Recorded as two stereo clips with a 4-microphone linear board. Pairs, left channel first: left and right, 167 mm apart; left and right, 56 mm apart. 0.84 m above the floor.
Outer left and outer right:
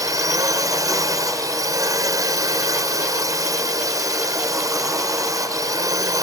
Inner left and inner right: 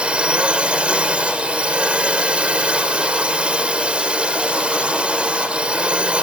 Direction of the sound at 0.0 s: 20° right (ahead or behind).